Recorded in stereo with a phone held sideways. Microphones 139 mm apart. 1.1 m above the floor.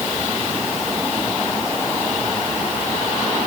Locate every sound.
Only background noise.